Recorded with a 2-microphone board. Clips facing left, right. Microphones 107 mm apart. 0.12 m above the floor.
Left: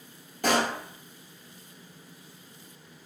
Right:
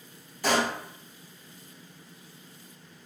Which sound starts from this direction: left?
A pop, at 0.4 s.